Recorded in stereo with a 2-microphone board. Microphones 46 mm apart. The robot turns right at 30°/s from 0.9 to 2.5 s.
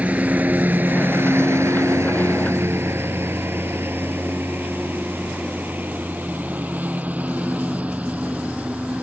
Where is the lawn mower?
35° right (ahead or behind); by 9.0 s 25° right (ahead or behind).